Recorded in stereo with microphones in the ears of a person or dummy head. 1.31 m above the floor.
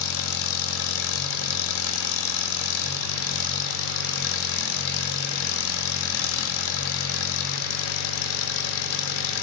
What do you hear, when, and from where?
0.0 s an engine running: 80° left, 1.6 m